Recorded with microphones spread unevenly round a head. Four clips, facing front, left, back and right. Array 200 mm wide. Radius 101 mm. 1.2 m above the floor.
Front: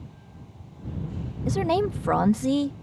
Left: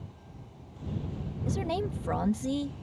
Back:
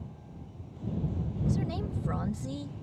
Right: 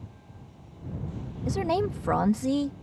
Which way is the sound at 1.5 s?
20° right.